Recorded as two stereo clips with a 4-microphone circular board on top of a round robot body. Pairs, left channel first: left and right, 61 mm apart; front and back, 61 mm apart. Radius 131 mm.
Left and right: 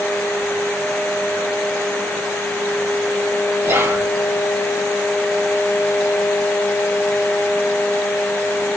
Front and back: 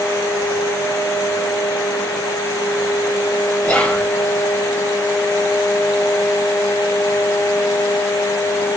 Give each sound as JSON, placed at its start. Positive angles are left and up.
{"t": 3.6, "sound": "whispering", "azimuth_deg": -65, "distance_m": 1.5}